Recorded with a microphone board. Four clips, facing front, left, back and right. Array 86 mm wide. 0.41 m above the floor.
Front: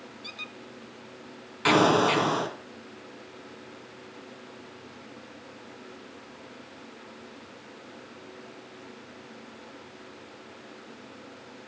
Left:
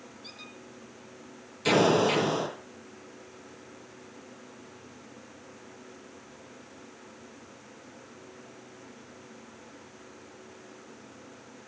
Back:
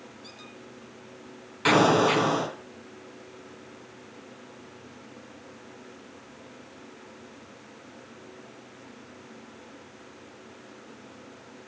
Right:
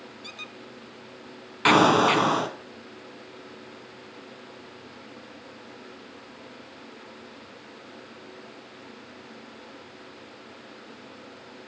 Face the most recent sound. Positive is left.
turn(degrees=-90)